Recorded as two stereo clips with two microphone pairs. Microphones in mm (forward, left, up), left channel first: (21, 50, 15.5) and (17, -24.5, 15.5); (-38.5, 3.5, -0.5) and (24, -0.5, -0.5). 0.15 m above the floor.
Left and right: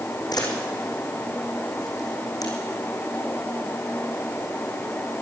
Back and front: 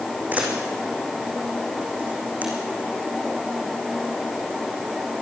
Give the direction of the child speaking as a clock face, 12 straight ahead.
I don't hear a child speaking.